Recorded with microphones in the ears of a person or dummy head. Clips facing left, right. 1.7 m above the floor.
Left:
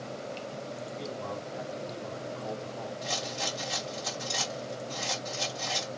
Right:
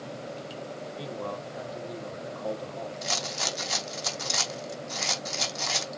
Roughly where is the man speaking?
Right.